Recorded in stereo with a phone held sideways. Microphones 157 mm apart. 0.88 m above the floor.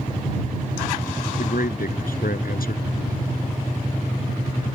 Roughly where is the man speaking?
Left.